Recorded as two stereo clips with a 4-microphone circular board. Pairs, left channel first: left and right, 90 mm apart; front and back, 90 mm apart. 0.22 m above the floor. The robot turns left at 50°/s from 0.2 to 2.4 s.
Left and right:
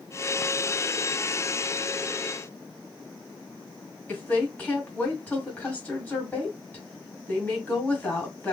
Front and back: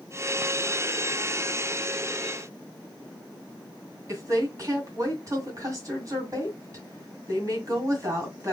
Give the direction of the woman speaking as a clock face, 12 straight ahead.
7 o'clock.